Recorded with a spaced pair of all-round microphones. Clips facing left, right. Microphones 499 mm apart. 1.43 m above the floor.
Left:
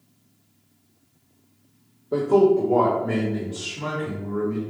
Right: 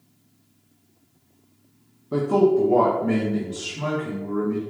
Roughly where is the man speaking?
Right.